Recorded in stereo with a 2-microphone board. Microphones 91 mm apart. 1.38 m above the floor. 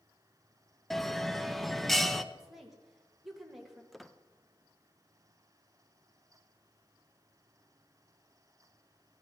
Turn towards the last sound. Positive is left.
turn(degrees=0)  # may be behind; listen again after turning